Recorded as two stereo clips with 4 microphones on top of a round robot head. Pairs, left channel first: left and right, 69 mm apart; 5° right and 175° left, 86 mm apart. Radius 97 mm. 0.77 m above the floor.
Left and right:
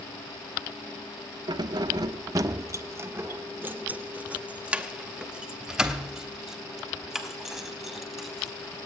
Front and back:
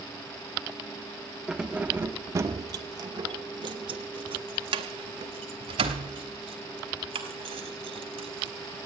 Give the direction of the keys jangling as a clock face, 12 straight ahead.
3 o'clock.